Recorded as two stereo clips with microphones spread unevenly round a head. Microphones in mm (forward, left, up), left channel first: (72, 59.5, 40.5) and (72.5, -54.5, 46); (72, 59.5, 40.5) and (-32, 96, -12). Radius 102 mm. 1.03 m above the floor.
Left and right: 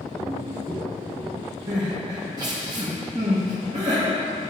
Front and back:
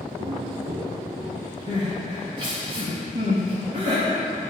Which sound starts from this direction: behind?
Footsteps, at 0.2 s.